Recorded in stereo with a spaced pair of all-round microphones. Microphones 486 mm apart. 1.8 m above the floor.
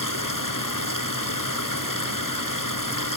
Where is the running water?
40° left (ahead or behind).